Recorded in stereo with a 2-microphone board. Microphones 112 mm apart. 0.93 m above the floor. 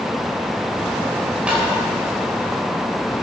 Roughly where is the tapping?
Centre.